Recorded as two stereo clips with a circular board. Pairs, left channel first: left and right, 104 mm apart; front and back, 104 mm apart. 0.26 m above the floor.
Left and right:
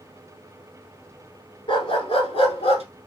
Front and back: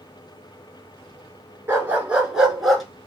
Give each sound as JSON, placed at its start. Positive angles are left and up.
{"t": 1.7, "sound": "a dog barking", "azimuth_deg": 115, "distance_m": 1.4}